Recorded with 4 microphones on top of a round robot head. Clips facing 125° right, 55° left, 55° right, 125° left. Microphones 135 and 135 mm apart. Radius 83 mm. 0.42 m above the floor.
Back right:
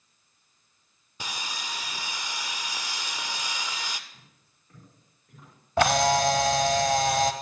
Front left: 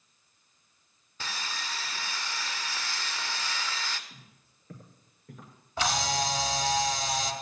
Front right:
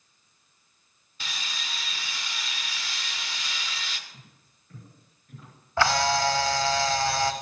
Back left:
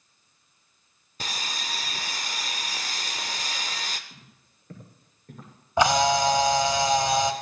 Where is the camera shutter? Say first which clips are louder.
Back right 8 dB, back left 3 dB; 160° right, 0.8 m.